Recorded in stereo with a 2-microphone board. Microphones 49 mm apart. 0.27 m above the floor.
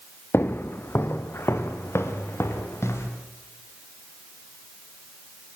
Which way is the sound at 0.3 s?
45° left (ahead or behind).